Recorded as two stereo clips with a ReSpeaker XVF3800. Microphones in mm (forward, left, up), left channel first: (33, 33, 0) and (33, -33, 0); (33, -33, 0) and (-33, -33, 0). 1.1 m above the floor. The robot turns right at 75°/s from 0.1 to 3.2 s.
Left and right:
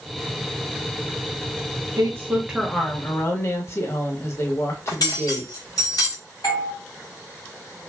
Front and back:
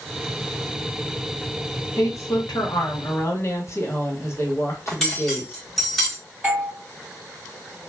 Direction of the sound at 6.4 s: 115° left.